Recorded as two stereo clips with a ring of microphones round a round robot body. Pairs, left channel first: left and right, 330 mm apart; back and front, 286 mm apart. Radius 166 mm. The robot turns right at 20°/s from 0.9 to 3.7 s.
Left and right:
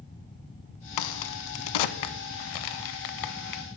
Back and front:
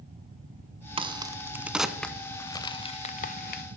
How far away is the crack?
About 0.7 m.